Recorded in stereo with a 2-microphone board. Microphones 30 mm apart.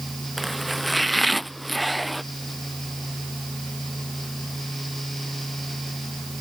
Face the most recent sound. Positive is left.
turn(degrees=0)  # may be behind; listen again after turning